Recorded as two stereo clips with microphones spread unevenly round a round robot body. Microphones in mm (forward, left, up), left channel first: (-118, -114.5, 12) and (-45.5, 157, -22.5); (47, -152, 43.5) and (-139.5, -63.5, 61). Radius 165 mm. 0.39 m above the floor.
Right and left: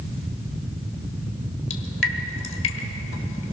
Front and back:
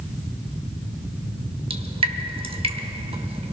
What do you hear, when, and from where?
1.7 s dripping: 145° right, 1.8 m